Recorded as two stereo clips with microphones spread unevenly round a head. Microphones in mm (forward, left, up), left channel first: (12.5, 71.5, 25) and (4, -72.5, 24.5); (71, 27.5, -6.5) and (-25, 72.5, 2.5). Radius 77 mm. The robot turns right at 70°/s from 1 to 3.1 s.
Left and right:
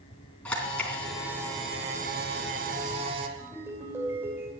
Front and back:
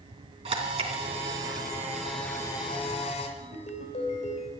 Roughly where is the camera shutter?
Behind.